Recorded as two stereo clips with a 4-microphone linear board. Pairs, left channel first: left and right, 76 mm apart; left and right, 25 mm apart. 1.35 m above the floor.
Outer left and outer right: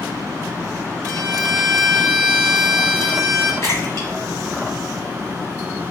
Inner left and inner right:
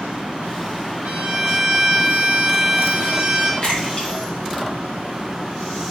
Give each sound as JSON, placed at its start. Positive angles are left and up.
{"t": 1.1, "sound": "a violin", "side_deg": -40, "distance_m": 1.6}
{"t": 3.6, "sound": "a splash", "side_deg": 40, "distance_m": 1.5}